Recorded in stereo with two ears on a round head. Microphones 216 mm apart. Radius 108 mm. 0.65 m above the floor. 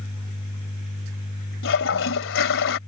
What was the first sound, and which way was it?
A toilet flushing, 55° left (ahead or behind).